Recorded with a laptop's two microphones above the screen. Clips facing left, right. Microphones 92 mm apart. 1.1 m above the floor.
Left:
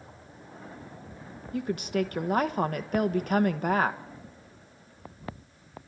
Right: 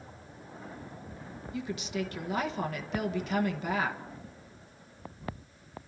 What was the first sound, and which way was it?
A woman speaking, 50° left (ahead or behind).